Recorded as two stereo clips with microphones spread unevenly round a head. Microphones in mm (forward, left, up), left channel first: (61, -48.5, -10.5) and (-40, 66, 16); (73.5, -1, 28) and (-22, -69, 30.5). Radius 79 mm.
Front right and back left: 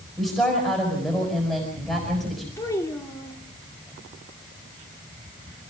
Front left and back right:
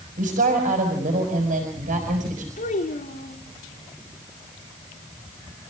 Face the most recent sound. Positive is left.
turn(degrees=25)